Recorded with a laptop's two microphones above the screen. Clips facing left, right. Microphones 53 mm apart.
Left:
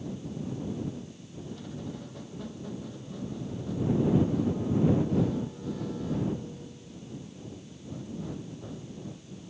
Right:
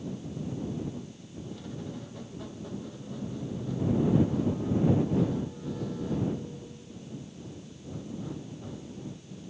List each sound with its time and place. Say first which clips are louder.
1.5 s a squeak: left 1 dB; centre (ahead or behind)